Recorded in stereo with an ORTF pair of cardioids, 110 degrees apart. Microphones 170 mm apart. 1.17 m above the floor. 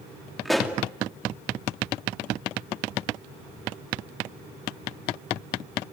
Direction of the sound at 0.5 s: Straight ahead.